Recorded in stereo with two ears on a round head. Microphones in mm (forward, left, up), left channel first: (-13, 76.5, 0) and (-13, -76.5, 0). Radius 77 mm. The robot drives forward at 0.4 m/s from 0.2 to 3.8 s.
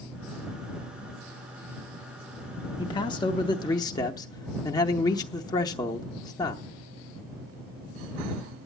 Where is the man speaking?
25° left (ahead or behind), 0.7 m.